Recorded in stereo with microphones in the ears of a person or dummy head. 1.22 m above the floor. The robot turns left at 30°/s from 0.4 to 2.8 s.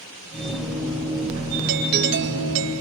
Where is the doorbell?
50° right; by 2.8 s 85° right.